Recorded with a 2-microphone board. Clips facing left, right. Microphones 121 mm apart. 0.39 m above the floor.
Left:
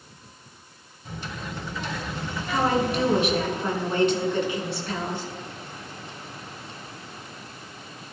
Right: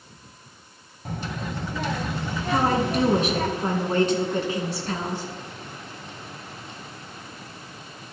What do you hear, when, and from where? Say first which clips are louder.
1.1 s a child speaking: right 4 dB; 55° right (ahead or behind), 1.5 m
2.5 s a woman speaking: right 1 dB; 40° right (ahead or behind), 3.5 m